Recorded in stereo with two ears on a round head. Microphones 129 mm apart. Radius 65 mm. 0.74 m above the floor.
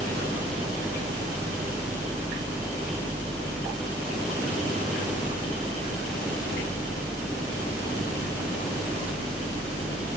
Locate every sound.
Only background noise.